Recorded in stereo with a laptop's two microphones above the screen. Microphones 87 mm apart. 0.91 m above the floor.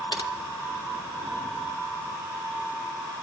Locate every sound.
0.1 s typing on a keyboard: 70° left (ahead or behind), 2.5 m